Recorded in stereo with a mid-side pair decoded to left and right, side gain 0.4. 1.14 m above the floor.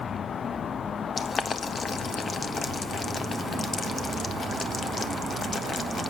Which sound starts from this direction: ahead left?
Boiling, at 1.2 s.